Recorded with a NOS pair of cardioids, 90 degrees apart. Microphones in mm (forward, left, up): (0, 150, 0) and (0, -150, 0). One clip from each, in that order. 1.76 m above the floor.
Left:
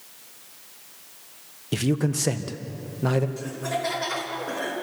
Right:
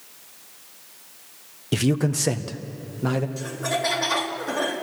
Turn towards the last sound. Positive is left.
turn(degrees=-30)